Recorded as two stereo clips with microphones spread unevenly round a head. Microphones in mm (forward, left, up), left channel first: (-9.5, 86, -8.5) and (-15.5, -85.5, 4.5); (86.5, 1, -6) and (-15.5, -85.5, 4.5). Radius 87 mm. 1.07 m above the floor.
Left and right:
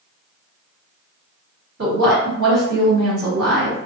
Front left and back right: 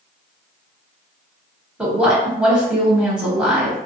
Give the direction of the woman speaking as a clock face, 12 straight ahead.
2 o'clock.